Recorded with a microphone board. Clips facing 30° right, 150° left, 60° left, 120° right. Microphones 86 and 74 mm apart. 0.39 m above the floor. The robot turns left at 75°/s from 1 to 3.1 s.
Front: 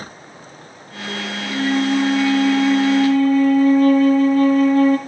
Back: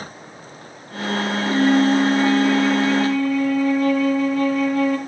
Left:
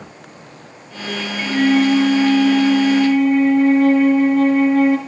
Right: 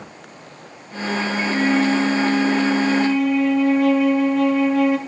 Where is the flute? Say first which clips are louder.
Back 3 dB, left 5 dB; 145° left, 3 m; by 5.0 s 15° left, 3 m.